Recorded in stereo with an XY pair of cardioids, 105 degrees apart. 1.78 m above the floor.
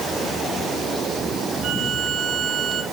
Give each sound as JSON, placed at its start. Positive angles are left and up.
{"t": 1.6, "sound": "a violin", "azimuth_deg": -55, "distance_m": 8.0}